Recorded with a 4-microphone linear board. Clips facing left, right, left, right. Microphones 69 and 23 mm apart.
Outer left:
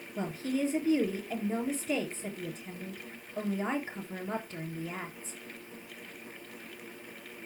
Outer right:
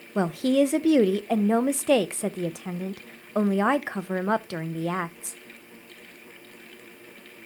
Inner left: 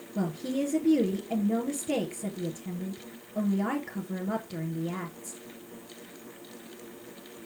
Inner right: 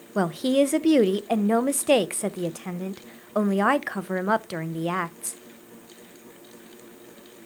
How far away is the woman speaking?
About 0.7 m.